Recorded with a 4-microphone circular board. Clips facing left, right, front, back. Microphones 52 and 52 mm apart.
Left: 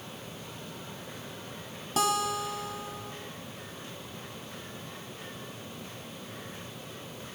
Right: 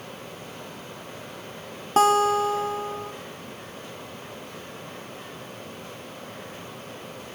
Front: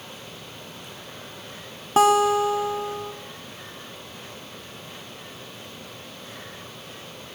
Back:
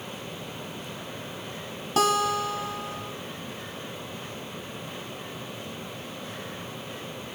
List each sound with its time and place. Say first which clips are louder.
2.0 s a guitar: right 10 dB, front 6 dB; 55° right, 1.2 m